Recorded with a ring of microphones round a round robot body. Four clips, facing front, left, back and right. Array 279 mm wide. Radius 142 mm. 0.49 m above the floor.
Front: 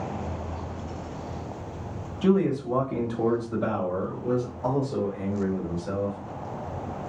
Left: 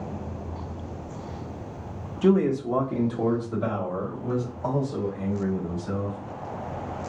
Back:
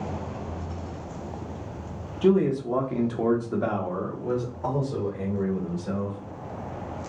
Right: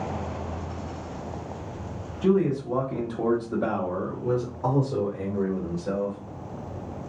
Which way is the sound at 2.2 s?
110° left.